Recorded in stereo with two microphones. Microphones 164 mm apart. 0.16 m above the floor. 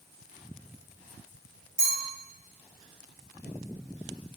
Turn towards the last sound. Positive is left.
turn(degrees=60)  # may be behind; listen again after turning